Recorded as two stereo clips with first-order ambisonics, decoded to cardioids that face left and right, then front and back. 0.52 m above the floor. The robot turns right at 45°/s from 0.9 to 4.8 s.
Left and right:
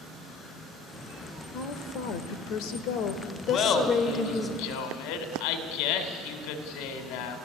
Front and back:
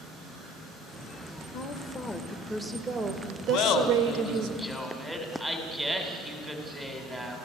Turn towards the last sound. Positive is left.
turn(degrees=100)